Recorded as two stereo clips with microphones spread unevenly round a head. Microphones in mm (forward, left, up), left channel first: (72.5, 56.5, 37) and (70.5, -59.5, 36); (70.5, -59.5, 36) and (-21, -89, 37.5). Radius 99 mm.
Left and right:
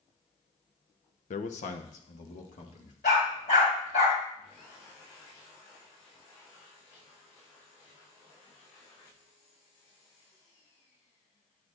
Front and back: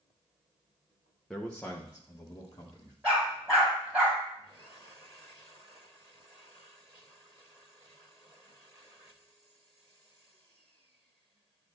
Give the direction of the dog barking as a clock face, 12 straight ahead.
8 o'clock.